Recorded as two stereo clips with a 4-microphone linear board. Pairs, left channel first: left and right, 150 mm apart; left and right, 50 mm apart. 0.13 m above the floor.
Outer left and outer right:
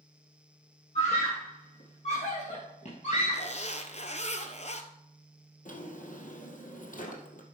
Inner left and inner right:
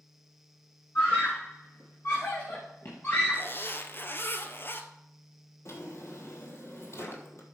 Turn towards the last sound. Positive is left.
turn(degrees=65)  # may be behind; listen again after turning